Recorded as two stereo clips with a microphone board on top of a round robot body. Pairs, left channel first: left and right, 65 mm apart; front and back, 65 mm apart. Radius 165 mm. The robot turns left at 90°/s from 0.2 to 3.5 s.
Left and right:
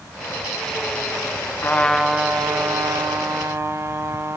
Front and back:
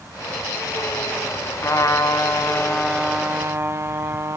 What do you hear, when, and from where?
1.6 s a trumpet: 35° left, 1.0 m; by 4.4 s 135° right, 1.0 m